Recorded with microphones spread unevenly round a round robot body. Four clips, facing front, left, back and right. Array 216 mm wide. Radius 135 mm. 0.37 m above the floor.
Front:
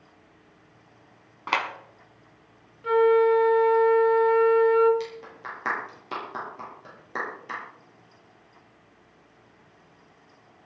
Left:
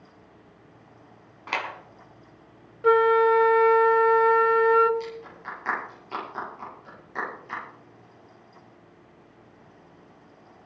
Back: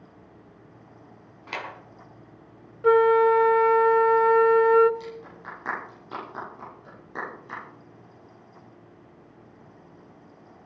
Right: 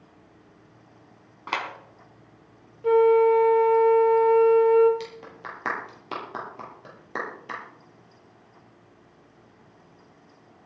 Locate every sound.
1.5 s a clap: 5° left, 4 m
2.8 s a flute: 130° left, 1.0 m
5.0 s a clap: 105° right, 8.5 m